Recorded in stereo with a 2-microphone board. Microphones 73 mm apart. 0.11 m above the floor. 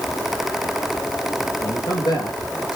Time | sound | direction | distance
1.6 | a man speaking | 75° left (ahead or behind) | 5.5 m